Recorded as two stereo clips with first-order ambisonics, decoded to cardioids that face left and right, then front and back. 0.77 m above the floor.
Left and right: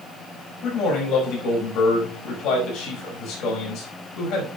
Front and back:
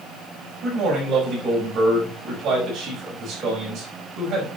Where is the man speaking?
120° left, 5 m.